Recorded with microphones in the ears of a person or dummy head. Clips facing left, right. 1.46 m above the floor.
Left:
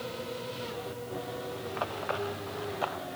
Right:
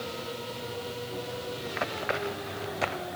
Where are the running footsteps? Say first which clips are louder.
Right 2 dB; 25° right (ahead or behind); by 3.1 s 30° right (ahead or behind).